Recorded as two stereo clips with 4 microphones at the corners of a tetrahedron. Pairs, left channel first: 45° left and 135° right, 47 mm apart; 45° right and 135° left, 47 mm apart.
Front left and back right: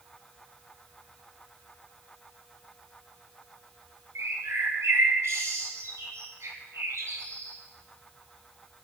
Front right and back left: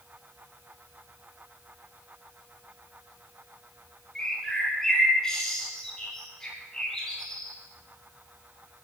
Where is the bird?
125° right, 4.5 m.